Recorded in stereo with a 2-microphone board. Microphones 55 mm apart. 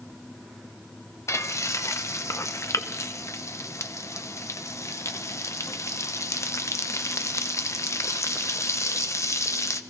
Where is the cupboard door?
No cupboard door in this recording.